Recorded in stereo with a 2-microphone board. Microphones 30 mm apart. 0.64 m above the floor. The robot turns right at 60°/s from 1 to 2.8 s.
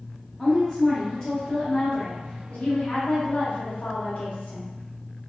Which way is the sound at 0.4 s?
10° left.